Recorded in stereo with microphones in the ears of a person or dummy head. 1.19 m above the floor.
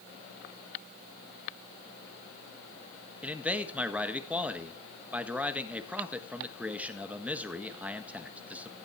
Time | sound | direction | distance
3.2 | a man speaking | 5° right (ahead or behind) | 1.5 m